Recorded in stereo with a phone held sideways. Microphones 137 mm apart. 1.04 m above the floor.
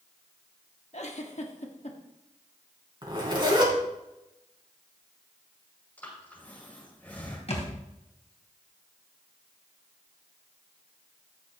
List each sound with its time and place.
0.9 s a giggle: 50° left (ahead or behind), 1.3 m
3.0 s a zipper: 35° right (ahead or behind), 3 m
6.0 s breathing: 15° left (ahead or behind), 6 m
7.5 s a thud: 45° left (ahead or behind), 2 m